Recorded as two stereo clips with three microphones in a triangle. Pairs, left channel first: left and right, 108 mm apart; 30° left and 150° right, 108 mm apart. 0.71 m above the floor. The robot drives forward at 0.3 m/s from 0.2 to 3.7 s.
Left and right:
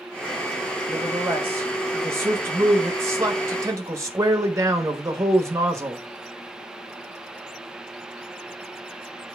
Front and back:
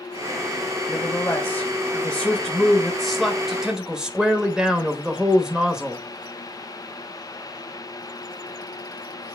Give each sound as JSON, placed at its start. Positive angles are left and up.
{"t": 0.9, "sound": "a man speaking", "azimuth_deg": -30, "distance_m": 1.6}